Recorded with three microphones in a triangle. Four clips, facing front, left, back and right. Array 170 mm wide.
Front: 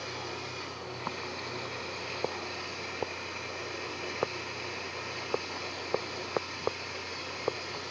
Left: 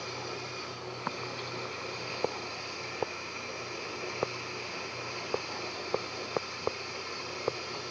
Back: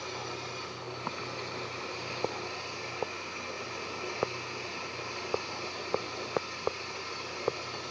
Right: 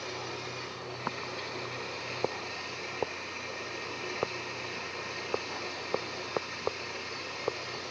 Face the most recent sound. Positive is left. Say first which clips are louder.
# even, even
turn(degrees=-25)